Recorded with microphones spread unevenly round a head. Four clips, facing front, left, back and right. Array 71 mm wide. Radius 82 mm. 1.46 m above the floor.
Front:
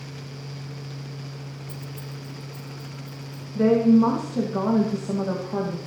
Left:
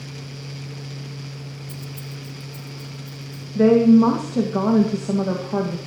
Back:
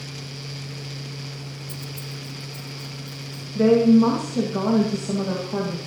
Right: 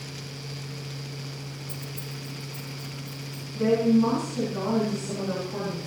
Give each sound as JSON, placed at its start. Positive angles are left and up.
{"t": 1.7, "sound": "keys jangling", "azimuth_deg": 95, "distance_m": 1.1}
{"t": 3.5, "sound": "a woman speaking", "azimuth_deg": 100, "distance_m": 2.5}